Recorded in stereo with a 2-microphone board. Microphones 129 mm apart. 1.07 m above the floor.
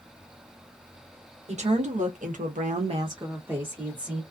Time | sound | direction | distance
1.5 | a woman speaking | 60° right (ahead or behind) | 1.1 m